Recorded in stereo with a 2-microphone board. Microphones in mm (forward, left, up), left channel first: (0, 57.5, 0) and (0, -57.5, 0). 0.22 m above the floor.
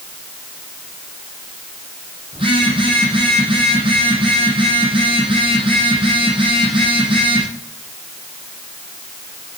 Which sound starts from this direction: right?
A phone buzzing, at 2.3 s.